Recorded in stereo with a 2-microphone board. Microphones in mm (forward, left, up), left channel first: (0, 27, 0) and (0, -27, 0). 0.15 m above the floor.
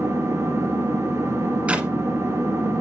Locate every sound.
0.0 s an engine running: 60° right (ahead or behind), 1.9 m
1.7 s a clap: 25° right (ahead or behind), 1.2 m